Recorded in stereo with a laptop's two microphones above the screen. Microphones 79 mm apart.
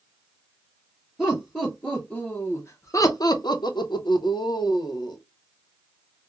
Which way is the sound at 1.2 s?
Centre (ahead or behind).